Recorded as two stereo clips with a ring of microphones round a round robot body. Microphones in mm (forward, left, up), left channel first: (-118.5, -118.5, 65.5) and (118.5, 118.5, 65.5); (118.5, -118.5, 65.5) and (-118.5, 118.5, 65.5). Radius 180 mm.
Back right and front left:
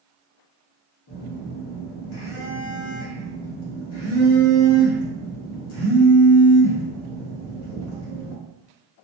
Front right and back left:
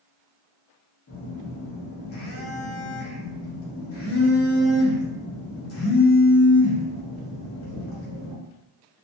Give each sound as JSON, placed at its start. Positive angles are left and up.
{"t": 1.1, "sound": "a phone buzzing", "azimuth_deg": -90, "distance_m": 1.0}